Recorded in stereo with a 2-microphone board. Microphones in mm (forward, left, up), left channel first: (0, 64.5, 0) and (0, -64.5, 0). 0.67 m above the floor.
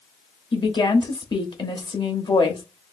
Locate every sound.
0.5 s a woman speaking: 35° left (ahead or behind), 0.9 m